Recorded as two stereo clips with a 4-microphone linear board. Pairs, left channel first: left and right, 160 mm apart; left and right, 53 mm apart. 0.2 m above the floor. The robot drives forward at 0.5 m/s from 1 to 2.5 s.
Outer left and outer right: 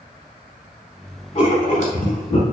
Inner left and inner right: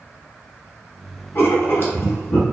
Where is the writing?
45° left (ahead or behind), 1.0 m.